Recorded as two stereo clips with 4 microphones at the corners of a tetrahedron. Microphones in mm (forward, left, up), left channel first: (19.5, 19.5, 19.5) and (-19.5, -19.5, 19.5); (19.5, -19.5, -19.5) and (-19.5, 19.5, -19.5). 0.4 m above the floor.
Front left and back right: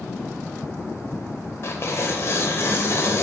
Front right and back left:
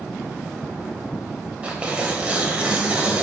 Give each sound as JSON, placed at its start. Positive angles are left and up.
{"t": 1.6, "sound": "tearing paper", "azimuth_deg": 70, "distance_m": 1.2}